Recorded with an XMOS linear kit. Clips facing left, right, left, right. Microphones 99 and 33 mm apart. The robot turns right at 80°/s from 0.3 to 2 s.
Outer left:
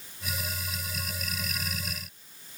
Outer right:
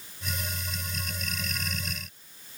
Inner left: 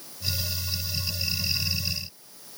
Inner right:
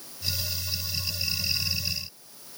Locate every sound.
Only background noise.